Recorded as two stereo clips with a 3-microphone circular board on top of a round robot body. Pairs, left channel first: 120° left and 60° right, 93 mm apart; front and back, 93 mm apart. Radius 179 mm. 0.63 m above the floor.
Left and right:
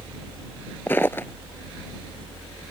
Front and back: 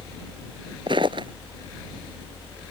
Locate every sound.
0.9 s footsteps: 170° right